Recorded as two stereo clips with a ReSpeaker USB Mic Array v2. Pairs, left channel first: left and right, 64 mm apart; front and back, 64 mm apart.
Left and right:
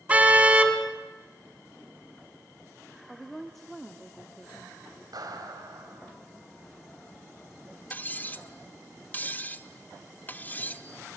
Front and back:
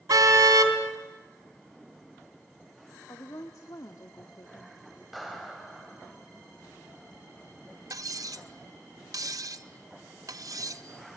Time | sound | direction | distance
0.1 | a car horn | 160° right | 2 m
3.1 | a woman speaking | 5° left | 1.2 m
5.1 | a clap | 90° right | 3.5 m
7.9 | cutlery clinking | 155° left | 0.7 m